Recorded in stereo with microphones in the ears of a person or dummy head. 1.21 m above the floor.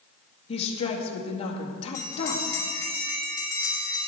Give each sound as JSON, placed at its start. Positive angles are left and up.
{"t": 0.5, "sound": "a woman speaking", "side_deg": 40, "distance_m": 2.0}
{"t": 1.9, "sound": "a bell", "side_deg": 20, "distance_m": 4.5}